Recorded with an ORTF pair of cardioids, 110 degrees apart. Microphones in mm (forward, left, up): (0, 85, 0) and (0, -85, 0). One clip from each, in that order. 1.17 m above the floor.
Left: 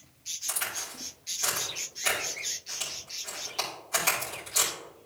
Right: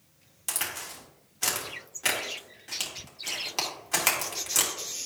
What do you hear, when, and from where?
0.5 s a crack: 55° right, 3 m